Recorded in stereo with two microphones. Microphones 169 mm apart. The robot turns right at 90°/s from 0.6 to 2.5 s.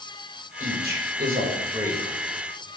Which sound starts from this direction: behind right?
A man speaking, at 0.6 s.